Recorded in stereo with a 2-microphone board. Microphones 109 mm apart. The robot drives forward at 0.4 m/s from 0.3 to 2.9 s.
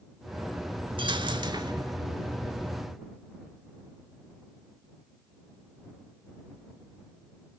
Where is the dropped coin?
50° right (ahead or behind), 1.2 m; by 1.9 s 40° right (ahead or behind), 1.5 m.